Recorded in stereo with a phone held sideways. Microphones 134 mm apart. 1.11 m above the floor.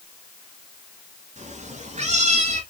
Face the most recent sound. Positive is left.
turn(degrees=-50)  # may be behind; listen again after turning